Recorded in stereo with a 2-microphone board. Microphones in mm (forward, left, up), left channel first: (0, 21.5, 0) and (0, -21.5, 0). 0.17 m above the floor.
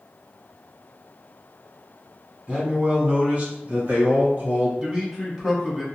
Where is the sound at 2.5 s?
25° right (ahead or behind), 1.1 m; by 4.7 s 40° right (ahead or behind), 1.8 m.